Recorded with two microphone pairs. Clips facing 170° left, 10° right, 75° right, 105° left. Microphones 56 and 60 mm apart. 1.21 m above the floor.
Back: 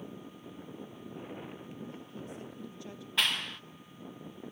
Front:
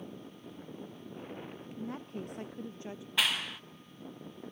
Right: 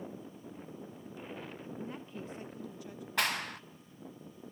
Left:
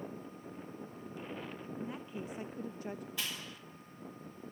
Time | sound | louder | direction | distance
1.8 | a woman speaking | front 4 dB, left 2 dB | 10° left | 1.1 m
3.2 | a clap | even, right 9 dB | 95° right | 0.7 m